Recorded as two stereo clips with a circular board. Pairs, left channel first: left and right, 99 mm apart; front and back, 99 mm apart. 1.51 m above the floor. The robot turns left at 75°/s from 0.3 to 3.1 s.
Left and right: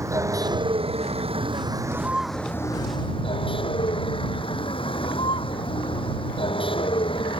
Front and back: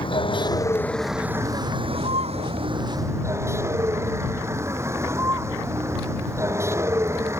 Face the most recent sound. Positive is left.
turn(degrees=120)